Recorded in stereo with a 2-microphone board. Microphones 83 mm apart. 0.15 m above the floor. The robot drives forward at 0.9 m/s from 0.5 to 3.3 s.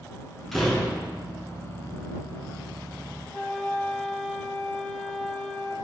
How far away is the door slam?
About 0.9 m.